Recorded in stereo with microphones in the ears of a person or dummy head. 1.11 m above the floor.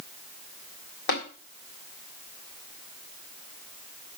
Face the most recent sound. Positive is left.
turn(degrees=50)  # may be behind; listen again after turning